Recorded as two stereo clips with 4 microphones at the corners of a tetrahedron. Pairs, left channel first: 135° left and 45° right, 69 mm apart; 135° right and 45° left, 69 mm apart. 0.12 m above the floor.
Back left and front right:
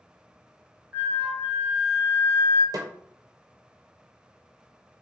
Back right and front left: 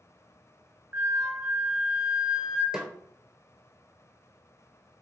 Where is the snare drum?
35° right, 0.6 m.